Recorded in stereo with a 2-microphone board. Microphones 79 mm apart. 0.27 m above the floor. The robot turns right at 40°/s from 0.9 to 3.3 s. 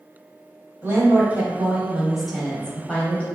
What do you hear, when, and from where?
0.8 s a woman speaking: 55° right, 1.1 m; by 3.2 s 35° left, 1.1 m